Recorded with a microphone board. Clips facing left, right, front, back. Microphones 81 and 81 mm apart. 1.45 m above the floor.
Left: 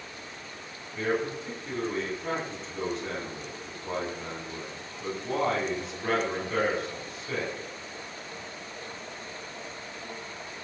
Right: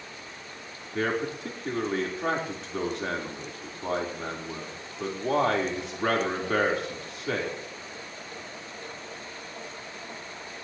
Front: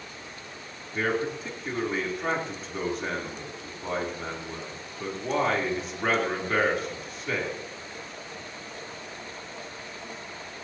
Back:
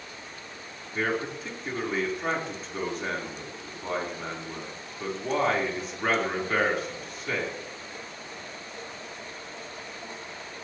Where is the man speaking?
90° right, 4 m.